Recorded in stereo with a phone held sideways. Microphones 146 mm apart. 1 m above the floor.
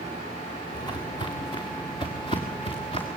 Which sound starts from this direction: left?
Footsteps, at 0.7 s.